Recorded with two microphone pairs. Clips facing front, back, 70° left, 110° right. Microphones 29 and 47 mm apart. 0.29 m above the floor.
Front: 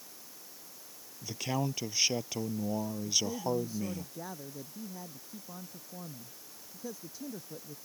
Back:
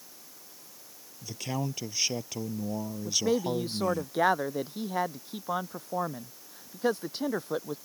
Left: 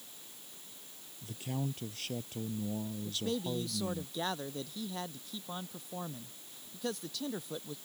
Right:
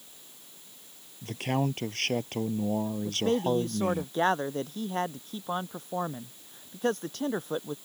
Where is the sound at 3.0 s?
155° right.